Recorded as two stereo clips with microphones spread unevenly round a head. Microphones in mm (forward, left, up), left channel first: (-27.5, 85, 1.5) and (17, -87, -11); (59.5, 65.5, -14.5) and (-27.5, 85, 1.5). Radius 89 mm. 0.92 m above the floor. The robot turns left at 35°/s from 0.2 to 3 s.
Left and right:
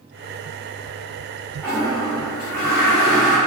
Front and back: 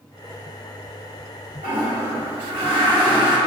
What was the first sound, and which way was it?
A toilet flushing, 175° right.